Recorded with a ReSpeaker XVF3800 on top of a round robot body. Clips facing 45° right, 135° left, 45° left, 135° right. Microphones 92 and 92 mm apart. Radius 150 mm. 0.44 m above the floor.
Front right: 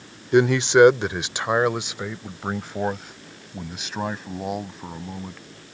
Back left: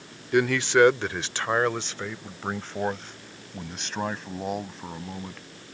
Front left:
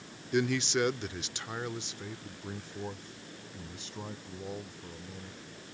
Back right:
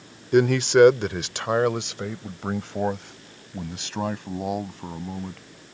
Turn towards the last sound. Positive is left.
turn(degrees=-130)